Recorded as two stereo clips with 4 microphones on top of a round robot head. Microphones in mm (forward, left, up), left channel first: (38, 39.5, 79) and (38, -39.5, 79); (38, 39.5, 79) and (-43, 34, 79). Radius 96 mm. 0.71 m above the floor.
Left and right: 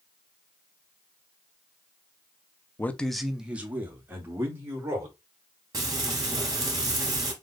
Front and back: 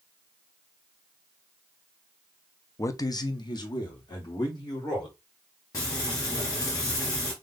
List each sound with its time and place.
2.8 s a man speaking: 35° left, 0.8 m; by 5.2 s 35° right, 3 m
5.7 s frying: 50° right, 3 m